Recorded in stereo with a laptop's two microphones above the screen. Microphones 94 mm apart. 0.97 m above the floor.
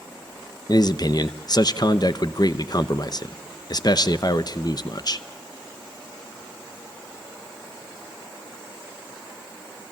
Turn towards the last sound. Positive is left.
turn(degrees=50)  # may be behind; listen again after turning